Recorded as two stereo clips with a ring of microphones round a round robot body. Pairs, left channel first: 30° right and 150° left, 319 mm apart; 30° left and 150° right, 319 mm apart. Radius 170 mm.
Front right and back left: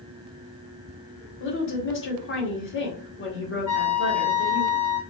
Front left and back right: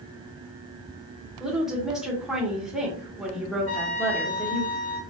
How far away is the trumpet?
About 2 m.